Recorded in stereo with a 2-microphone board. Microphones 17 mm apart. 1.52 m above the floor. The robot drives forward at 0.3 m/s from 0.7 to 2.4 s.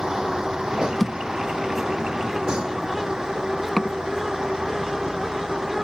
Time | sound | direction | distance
0.0 | a vehicle | 45° right (ahead or behind) | ?
1.0 | a thud | 5° left (ahead or behind) | ?